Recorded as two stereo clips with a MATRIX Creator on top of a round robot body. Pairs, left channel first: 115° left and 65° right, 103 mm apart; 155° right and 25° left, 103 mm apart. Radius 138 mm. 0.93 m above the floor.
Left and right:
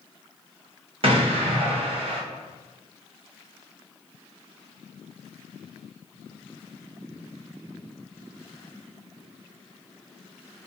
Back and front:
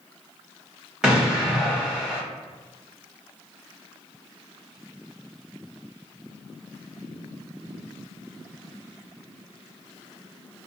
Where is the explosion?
60° right, 1.4 m.